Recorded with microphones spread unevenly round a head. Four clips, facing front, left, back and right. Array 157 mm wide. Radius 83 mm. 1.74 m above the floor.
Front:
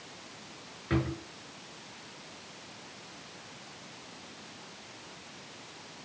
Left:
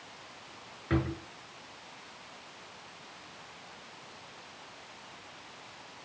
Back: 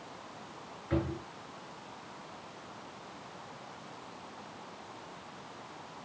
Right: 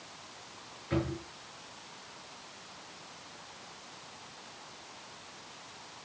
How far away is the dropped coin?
I don't hear a dropped coin.